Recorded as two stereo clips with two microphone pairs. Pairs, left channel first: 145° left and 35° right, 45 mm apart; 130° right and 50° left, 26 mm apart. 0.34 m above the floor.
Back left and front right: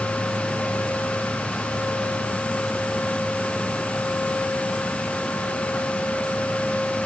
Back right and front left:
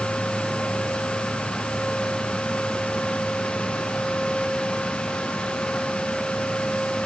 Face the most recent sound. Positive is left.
No sound to turn to.